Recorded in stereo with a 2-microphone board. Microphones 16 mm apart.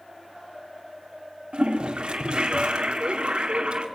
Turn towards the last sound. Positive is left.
turn(degrees=-65)  # may be behind; listen again after turning